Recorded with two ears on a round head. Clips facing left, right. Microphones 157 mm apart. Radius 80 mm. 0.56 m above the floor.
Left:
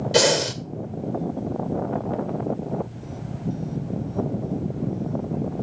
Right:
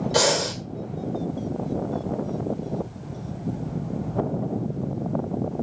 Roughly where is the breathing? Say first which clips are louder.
Left 4 dB; left.